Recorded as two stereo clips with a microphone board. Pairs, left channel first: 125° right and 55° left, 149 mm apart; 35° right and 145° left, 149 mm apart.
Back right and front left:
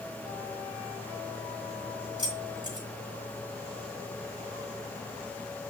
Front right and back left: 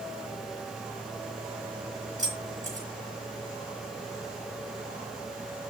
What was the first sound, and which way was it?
Keys jangling, 115° left.